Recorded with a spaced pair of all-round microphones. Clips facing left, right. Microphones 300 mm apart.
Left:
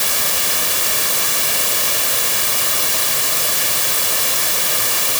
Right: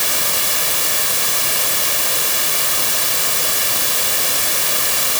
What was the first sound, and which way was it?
Only background noise.